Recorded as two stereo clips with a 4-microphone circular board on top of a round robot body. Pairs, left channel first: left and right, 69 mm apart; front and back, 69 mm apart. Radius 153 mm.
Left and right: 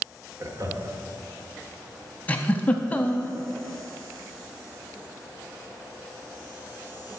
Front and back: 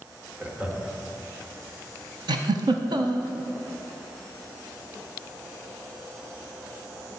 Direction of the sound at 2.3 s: 160° left.